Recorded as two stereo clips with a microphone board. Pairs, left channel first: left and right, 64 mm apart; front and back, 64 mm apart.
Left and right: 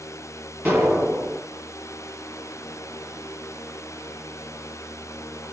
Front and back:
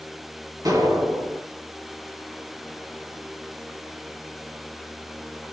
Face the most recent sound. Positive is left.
turn(degrees=-160)